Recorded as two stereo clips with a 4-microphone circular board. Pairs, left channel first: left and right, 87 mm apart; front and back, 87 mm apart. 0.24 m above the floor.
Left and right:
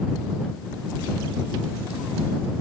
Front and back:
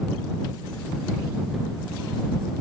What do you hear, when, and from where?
Only background noise.